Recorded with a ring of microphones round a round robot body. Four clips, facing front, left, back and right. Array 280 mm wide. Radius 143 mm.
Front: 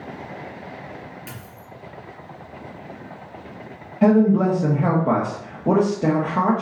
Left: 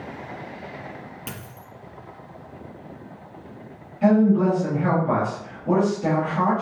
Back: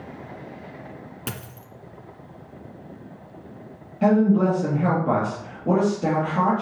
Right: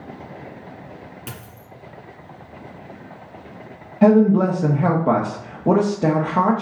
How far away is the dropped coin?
About 1.6 m.